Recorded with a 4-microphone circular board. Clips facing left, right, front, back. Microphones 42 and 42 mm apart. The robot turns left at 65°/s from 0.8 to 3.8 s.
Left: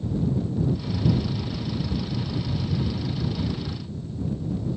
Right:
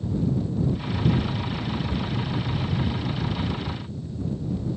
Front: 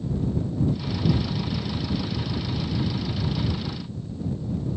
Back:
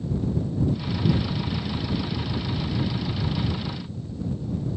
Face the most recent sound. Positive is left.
No sound to turn to.